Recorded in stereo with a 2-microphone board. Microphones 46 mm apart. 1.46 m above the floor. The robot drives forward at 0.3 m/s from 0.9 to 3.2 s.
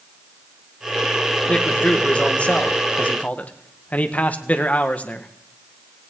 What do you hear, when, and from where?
1.5 s a man speaking: 25° left (ahead or behind), 2.0 m; by 5.3 s 35° left (ahead or behind), 1.5 m